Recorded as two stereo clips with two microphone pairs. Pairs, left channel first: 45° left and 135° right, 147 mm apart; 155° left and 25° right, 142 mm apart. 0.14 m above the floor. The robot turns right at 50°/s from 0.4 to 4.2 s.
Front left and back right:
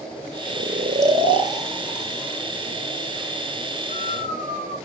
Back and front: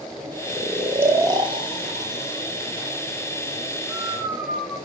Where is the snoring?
125° right, 0.6 m; by 4.8 s 60° left, 0.6 m.